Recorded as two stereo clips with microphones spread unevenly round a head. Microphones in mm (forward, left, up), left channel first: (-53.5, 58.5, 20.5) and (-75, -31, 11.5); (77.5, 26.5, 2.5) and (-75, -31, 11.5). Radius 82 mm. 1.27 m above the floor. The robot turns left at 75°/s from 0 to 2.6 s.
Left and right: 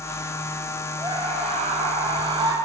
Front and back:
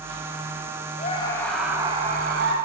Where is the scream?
25° right, 7 m; by 2.5 s 145° right, 7 m.